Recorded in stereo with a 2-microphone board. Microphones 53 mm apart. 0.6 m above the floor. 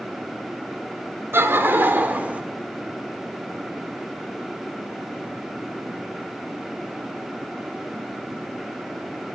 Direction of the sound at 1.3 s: 55° right (ahead or behind).